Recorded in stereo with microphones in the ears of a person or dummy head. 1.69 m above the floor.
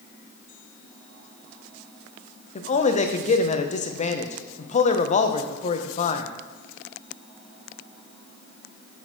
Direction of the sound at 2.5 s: 35° left (ahead or behind).